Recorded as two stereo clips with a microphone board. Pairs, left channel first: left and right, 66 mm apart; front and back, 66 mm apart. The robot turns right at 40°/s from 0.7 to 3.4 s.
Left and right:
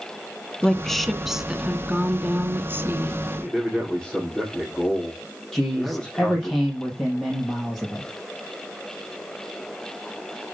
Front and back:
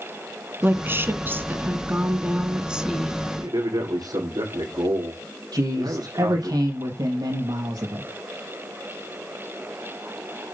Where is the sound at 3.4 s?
165° left, 6.5 m.